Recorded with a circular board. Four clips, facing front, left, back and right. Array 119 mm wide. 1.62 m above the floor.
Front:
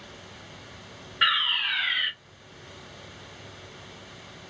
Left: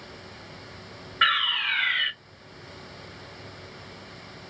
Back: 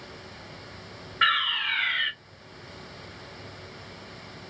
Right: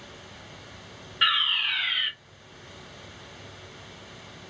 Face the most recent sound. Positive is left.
turn(degrees=110)